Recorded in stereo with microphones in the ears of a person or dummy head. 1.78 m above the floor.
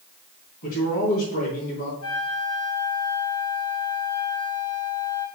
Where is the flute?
85° left, 3 m.